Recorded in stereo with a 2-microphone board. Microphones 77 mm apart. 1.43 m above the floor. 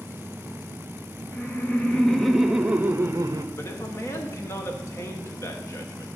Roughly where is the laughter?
Left.